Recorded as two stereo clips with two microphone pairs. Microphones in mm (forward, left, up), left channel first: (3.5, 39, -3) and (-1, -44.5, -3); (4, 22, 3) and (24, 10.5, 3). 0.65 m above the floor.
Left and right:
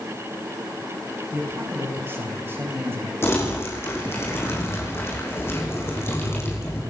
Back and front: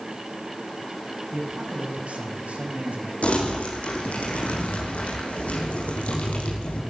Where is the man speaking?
30° right, 5.5 m.